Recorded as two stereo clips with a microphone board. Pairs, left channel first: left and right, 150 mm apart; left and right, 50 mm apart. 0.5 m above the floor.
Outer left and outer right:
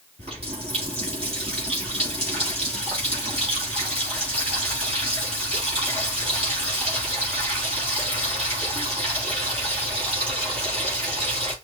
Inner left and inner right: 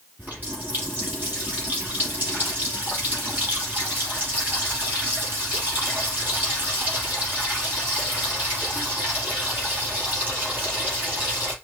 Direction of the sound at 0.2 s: 40° right (ahead or behind).